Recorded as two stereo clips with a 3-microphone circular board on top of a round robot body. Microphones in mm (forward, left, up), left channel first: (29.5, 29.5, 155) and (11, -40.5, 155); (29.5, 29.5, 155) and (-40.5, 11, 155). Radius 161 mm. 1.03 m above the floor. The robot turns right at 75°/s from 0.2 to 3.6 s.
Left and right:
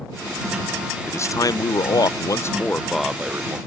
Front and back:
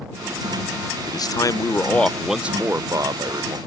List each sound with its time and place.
1.1 s a man speaking: 20° left; by 3.6 s 155° right